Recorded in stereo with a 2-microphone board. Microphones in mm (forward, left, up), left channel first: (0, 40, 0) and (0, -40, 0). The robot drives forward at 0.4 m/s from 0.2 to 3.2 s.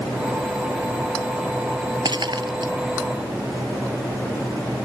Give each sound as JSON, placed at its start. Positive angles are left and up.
{"t": 2.0, "sound": "breaking glass", "side_deg": -65}